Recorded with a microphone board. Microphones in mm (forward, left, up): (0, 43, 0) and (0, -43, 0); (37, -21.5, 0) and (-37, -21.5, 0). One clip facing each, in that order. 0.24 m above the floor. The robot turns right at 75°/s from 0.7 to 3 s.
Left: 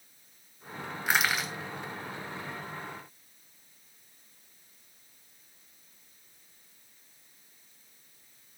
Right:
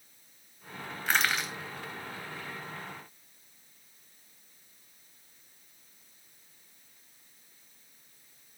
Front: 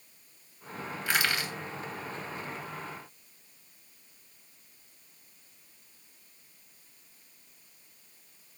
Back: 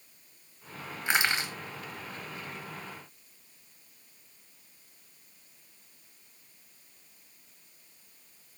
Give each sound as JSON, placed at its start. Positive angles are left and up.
{"t": 1.1, "sound": "crushing", "azimuth_deg": 150, "distance_m": 0.6}